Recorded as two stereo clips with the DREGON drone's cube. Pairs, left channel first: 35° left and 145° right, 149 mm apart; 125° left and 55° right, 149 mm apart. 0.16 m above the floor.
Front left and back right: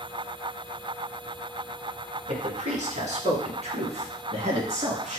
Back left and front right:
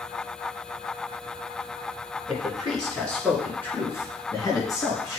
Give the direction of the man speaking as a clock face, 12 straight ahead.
5 o'clock.